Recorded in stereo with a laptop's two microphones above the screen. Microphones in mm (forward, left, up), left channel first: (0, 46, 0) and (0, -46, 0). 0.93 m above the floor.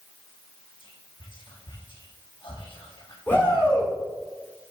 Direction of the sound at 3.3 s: 25° left (ahead or behind).